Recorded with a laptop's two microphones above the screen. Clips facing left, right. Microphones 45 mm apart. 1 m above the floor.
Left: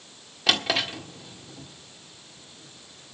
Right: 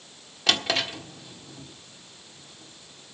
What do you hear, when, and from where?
0.5 s a drawer: centre (ahead or behind), 1.5 m